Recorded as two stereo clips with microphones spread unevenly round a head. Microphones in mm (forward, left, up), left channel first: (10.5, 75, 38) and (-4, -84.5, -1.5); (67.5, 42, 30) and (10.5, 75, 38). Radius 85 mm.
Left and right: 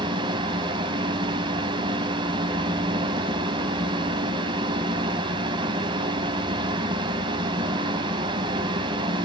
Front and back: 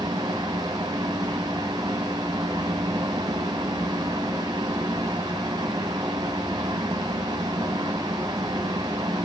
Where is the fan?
165° right, 1.3 m.